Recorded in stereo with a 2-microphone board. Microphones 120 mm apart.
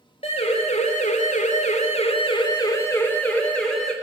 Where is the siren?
55° left (ahead or behind), 2.5 m; by 3.9 s 5° left (ahead or behind), 3.5 m.